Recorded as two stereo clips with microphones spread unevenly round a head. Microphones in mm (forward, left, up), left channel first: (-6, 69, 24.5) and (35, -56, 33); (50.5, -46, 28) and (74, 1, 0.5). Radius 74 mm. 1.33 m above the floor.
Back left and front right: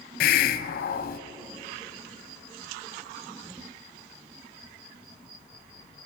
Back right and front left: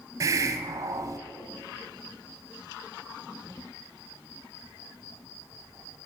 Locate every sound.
0.2 s a hiss: 100° left, 0.5 m